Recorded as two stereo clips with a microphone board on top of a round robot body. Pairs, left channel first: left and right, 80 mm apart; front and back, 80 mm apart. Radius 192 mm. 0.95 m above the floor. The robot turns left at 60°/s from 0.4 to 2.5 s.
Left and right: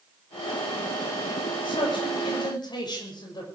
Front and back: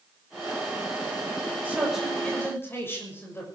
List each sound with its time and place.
1.6 s a man speaking: 115° left, 6.5 m; by 3.5 s 60° left, 6.5 m